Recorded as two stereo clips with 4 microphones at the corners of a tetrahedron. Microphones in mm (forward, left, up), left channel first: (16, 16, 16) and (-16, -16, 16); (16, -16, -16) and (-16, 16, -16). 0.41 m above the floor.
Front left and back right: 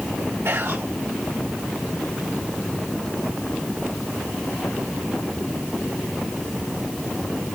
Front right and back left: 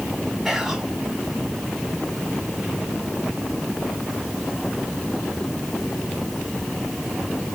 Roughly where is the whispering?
Behind right.